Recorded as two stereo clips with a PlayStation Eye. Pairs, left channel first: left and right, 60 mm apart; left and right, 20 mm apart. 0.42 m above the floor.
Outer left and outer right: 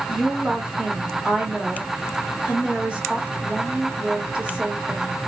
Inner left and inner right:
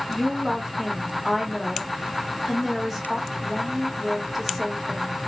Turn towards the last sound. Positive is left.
turn(degrees=-15)  # may be behind; listen again after turning